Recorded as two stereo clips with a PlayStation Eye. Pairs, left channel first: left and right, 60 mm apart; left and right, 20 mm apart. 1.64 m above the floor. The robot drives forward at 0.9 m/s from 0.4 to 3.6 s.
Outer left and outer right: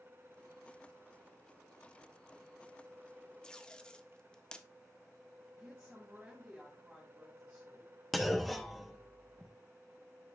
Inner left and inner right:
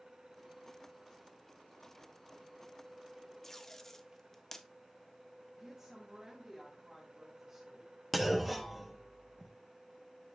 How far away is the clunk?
About 0.8 m.